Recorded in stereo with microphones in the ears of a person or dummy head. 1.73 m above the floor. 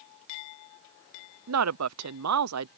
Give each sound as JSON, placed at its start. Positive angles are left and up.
{"t": 1.5, "sound": "a woman speaking", "side_deg": -85}